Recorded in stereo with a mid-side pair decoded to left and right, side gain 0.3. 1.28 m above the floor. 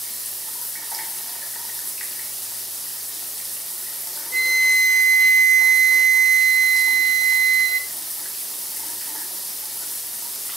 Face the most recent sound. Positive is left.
turn(degrees=-70)